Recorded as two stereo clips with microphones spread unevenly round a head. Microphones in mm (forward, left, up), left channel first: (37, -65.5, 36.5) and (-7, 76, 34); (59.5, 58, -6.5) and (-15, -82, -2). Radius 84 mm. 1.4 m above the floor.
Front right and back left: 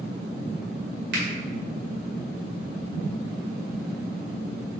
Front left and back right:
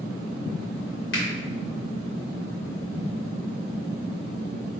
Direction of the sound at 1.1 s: 95° left.